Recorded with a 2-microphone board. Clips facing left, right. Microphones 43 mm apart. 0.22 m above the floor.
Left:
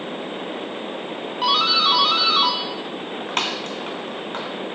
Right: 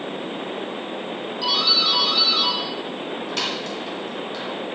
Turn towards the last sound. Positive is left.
turn(degrees=45)  # may be behind; listen again after turning